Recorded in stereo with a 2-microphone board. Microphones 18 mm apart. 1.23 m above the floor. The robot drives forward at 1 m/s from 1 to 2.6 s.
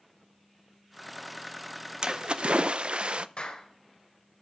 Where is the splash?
45° right (ahead or behind), 0.7 m; by 3.3 s 80° right, 0.5 m.